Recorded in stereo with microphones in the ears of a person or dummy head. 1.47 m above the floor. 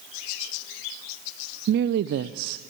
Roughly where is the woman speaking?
Right.